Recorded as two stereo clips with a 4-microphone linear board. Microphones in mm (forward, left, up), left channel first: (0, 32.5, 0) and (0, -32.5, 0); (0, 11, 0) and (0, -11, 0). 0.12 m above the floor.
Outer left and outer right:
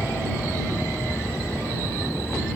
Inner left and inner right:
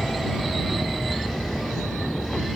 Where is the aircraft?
55° left (ahead or behind).